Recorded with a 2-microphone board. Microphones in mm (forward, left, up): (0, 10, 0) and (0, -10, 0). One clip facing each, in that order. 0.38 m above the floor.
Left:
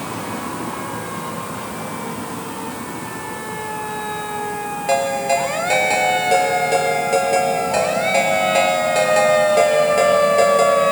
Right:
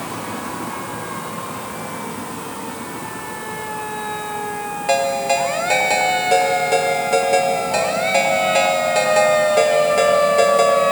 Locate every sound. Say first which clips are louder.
4.9 s a ringtone: even; 5° right (ahead or behind), 5 m